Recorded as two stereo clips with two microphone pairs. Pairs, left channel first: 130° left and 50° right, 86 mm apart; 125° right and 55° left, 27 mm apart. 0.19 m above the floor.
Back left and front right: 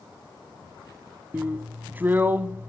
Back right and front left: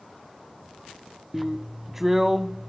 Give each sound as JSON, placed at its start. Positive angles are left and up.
{"t": 1.3, "sound": "a drill", "azimuth_deg": -10, "distance_m": 0.6}